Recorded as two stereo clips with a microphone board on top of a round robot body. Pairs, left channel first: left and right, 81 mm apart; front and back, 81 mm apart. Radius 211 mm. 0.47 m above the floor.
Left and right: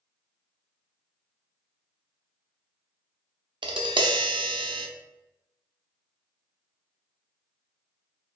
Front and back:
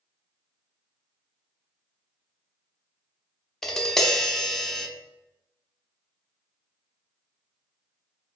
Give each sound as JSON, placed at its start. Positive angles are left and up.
{"t": 3.6, "sound": "tapping", "azimuth_deg": -85, "distance_m": 0.5}